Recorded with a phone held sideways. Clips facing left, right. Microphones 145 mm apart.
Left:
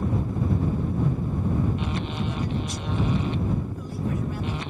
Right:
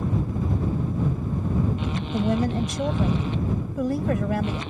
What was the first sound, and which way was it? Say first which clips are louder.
A woman speaking: right 6 dB; 75° right (ahead or behind).